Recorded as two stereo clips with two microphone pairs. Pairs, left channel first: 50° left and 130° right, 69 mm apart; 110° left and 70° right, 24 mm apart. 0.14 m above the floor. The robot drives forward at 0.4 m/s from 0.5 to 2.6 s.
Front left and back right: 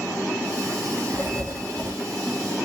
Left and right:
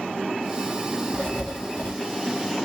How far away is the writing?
About 4 m.